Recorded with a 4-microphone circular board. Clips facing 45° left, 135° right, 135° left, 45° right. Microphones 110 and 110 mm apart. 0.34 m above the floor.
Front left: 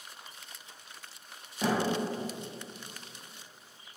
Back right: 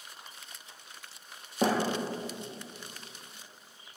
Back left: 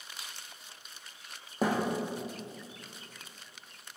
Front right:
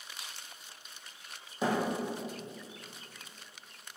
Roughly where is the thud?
Behind.